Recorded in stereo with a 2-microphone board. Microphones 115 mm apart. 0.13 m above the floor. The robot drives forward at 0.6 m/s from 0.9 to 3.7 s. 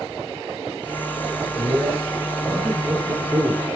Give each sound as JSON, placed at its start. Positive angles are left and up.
{"t": 1.6, "sound": "a man speaking", "side_deg": -10, "distance_m": 2.5}